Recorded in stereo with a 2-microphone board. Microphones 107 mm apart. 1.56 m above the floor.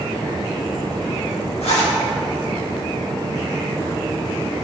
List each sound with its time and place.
1.6 s a zipper: 70° left (ahead or behind), 1.8 m